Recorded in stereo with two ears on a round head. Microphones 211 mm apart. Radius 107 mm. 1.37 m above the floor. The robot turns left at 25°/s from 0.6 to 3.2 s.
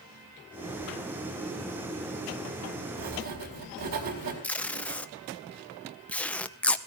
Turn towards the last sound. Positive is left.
turn(degrees=5)  # may be behind; listen again after turning